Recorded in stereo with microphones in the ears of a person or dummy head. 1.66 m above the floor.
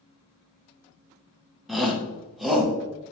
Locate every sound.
1.7 s a shout: centre (ahead or behind), 0.6 m